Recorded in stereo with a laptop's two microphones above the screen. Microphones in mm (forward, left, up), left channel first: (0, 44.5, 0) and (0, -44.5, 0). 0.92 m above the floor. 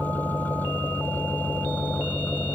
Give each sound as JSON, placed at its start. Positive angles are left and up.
{"t": 0.0, "sound": "an engine running", "side_deg": 20}